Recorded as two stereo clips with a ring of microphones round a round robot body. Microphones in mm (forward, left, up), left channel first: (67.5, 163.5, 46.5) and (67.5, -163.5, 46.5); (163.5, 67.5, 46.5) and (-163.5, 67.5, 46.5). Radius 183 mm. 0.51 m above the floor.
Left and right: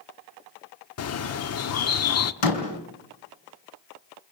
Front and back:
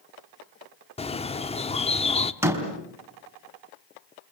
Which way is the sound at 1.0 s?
65° left.